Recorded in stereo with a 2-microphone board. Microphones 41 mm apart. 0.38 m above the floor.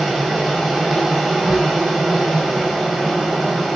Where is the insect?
10° right (ahead or behind), 1.5 m.